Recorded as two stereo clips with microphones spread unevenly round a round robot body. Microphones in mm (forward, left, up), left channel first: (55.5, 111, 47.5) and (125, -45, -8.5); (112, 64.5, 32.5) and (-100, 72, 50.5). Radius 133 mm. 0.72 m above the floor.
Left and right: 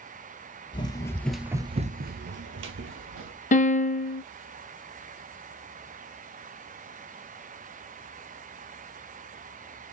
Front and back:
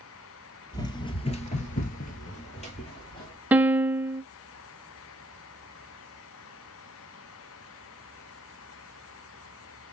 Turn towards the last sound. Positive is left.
turn(degrees=100)